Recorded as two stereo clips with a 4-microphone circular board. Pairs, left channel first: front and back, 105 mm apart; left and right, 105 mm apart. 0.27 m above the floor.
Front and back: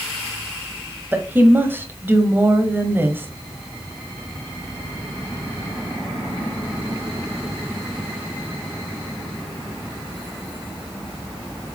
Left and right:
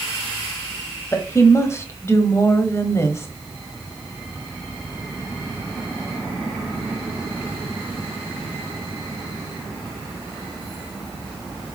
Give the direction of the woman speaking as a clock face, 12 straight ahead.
8 o'clock.